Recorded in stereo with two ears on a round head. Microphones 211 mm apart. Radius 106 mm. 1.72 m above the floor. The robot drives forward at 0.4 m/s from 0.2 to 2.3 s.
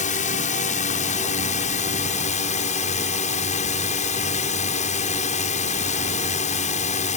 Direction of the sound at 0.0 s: 35° left (ahead or behind).